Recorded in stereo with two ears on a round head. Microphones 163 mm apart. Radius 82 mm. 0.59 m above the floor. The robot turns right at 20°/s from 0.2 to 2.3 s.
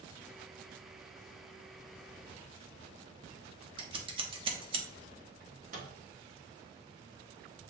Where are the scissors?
30° right (ahead or behind), 0.8 m.